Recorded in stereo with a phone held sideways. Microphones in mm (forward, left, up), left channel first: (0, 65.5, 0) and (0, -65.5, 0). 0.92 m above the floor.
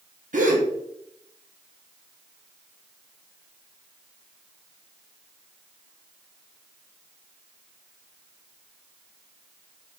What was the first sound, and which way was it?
A gasp, 70° right (ahead or behind).